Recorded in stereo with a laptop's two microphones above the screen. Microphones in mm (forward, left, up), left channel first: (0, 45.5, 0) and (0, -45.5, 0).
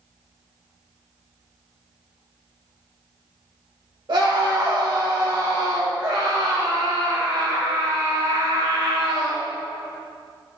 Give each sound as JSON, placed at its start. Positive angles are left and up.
{"t": 4.1, "sound": "a scream", "side_deg": -50, "distance_m": 1.3}